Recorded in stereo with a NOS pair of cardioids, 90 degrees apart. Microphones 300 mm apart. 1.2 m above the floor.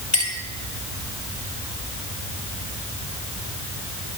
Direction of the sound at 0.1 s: 35° left.